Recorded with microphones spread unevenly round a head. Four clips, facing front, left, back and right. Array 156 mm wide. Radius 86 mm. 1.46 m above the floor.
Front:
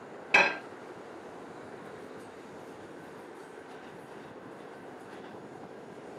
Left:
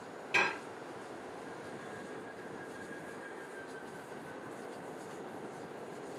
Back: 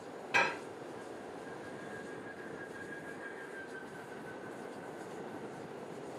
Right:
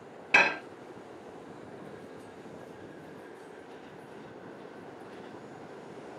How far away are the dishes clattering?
About 0.9 m.